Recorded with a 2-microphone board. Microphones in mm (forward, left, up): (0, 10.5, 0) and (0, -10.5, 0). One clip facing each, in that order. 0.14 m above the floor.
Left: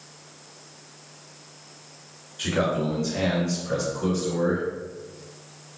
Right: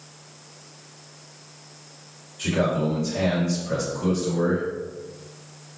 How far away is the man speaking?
About 1.9 m.